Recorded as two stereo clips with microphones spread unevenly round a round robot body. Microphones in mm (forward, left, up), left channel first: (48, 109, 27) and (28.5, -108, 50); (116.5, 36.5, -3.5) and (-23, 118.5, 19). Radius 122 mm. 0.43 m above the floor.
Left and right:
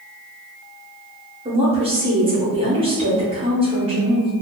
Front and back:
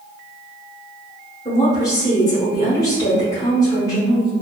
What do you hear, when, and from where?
1.4 s a woman speaking: 45° right, 1.0 m